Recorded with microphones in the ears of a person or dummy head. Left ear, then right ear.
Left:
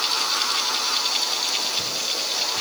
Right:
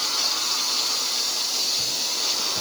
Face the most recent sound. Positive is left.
No sound to turn to.